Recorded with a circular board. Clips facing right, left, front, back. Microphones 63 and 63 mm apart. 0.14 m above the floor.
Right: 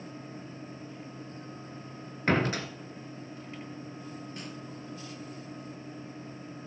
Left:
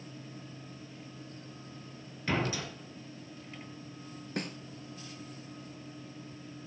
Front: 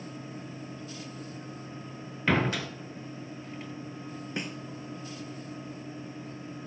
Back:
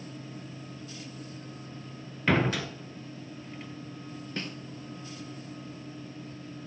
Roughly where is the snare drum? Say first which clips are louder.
Left 4 dB, front 1 dB; left.